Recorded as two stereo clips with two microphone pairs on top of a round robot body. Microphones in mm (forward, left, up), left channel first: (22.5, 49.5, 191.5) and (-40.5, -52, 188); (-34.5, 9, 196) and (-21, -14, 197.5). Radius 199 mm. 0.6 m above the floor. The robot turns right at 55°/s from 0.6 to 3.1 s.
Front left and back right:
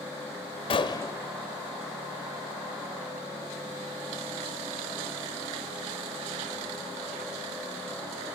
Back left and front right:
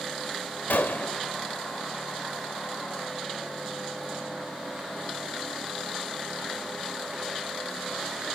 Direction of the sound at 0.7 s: 105° left.